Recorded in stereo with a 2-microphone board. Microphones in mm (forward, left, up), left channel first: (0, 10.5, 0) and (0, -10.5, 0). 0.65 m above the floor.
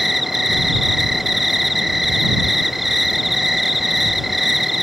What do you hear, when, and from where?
0.0 s an insect: 5° right (ahead or behind)